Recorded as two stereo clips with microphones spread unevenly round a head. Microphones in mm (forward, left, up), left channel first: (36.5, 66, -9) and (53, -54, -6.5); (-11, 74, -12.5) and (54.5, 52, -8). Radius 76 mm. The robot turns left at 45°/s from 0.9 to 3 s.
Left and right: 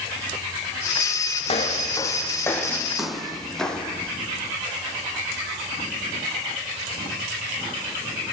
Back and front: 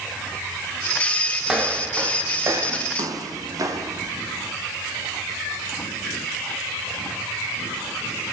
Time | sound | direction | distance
1.4 | footsteps | 60° left | 4 m